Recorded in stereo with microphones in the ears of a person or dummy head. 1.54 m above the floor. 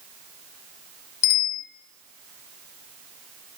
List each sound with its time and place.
1.2 s a bicycle bell: 60° left (ahead or behind), 2.5 m